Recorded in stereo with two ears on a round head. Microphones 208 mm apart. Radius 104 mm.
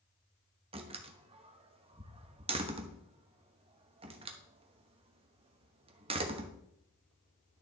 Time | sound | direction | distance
0.7 | a door slam | 25° right (ahead or behind) | 0.9 m